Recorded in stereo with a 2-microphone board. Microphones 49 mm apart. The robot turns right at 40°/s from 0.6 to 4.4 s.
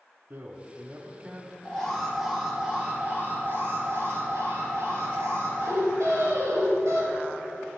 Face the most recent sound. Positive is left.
turn(degrees=-90)